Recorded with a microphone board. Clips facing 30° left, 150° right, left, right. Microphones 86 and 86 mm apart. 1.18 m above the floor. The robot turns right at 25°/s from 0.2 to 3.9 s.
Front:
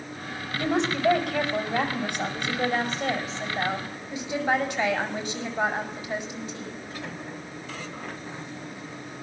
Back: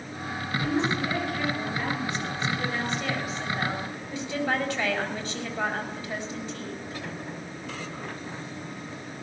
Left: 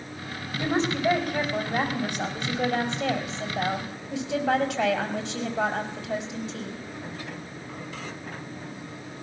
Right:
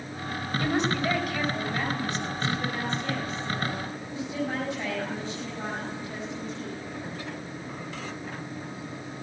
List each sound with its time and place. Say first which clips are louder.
0.6 s a woman speaking: front 2 dB, left 1 dB; 20° left, 6.5 m; by 6.8 s 105° left, 6.5 m